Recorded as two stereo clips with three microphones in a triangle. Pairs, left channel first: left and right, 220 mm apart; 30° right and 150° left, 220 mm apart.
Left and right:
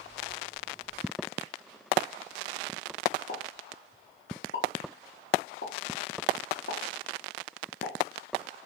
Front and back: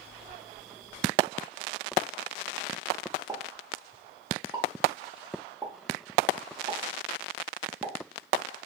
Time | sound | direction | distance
3.3 | a pop | 85° left | 0.6 m